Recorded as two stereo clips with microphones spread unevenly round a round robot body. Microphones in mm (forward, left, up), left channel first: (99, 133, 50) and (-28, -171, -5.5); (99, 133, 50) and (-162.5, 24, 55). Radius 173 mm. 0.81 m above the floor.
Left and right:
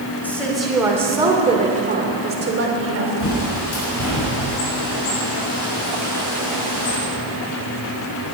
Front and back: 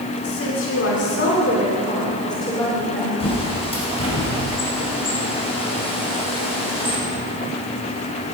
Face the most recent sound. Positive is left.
turn(degrees=95)